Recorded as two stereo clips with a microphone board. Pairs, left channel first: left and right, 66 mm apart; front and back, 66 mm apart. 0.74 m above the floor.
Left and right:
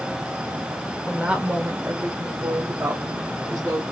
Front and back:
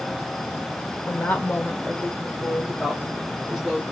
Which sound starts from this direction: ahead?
A woman speaking, at 1.1 s.